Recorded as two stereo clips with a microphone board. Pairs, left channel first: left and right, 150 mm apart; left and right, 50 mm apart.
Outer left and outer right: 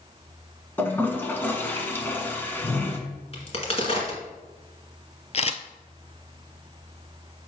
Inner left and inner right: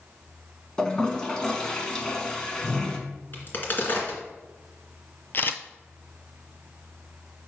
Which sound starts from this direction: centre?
A toilet flushing, at 0.8 s.